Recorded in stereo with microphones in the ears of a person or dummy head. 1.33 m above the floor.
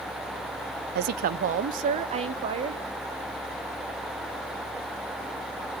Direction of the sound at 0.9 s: 55° right (ahead or behind).